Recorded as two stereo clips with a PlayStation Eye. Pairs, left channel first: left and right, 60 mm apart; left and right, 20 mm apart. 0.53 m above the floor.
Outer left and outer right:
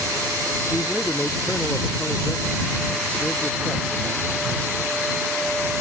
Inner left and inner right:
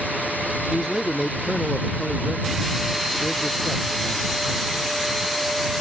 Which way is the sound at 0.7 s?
20° left (ahead or behind).